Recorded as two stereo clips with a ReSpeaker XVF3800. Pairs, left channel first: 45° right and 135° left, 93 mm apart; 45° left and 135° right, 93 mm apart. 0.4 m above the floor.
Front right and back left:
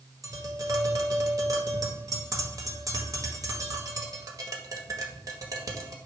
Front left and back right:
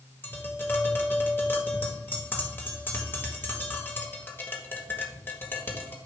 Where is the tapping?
105° left, 1.7 m.